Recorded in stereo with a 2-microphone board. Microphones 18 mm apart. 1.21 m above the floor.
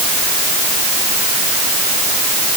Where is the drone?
I don't hear a drone.